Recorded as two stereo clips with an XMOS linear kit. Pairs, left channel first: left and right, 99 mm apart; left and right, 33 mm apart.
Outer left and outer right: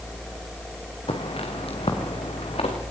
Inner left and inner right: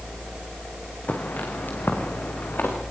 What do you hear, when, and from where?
1.1 s footsteps: 65° left (ahead or behind), 3.5 m; by 2.8 s 75° left (ahead or behind), 5 m